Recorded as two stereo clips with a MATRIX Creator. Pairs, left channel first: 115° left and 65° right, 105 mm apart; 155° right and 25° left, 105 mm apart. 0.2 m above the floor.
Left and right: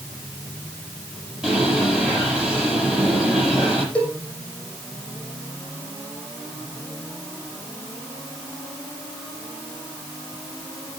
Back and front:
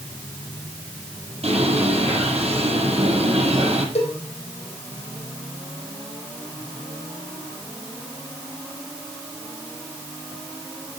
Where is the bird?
15° left, 6.5 m.